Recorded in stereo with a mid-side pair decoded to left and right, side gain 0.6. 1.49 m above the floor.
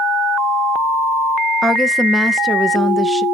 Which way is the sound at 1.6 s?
Straight ahead.